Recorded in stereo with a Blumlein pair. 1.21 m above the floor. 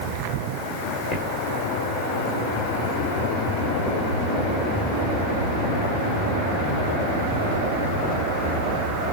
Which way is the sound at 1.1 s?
20° left.